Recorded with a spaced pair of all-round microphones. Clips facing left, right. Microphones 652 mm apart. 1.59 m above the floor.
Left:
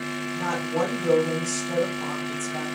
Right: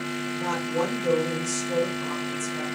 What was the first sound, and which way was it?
A woman speaking, 80° left.